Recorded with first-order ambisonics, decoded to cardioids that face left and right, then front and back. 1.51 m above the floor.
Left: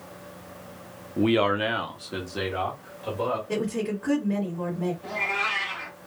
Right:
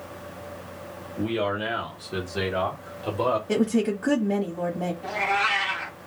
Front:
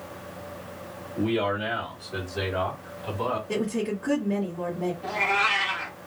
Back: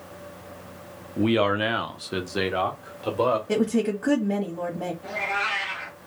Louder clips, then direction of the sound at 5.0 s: Right 3 dB, front 3 dB; 55° right.